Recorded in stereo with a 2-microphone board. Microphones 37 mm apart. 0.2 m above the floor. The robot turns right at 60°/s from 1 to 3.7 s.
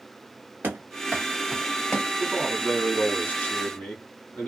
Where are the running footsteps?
65° right (ahead or behind), 1.3 m; by 2.1 s 30° left (ahead or behind), 0.7 m.